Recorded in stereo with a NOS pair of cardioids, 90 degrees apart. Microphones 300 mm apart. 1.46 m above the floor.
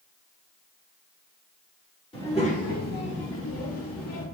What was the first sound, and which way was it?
A child speaking, 20° left.